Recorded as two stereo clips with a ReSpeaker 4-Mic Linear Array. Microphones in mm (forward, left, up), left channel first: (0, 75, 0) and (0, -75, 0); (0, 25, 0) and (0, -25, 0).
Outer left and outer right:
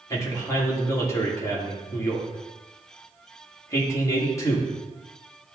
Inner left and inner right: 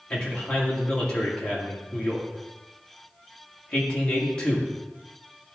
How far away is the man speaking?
About 2 m.